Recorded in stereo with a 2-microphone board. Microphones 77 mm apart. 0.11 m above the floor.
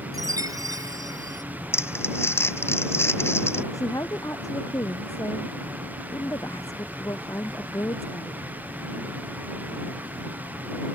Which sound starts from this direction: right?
A chime, at 0.1 s.